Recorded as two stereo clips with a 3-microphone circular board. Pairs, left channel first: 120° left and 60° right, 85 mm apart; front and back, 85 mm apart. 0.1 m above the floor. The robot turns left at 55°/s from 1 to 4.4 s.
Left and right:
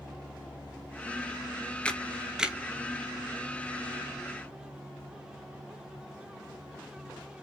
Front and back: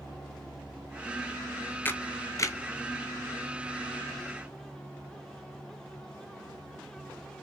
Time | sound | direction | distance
1.9 | a camera shutter | 50° left | 0.7 m